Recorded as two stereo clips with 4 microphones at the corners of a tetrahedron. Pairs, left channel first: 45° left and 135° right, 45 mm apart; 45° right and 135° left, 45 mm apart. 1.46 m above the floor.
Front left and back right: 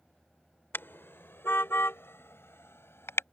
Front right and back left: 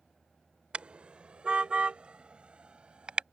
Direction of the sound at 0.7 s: 70° left.